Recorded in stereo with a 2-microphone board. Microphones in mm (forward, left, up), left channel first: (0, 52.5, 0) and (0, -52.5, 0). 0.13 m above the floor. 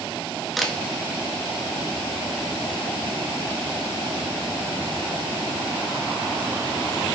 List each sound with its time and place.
0.6 s a camera shutter: centre (ahead or behind), 0.5 m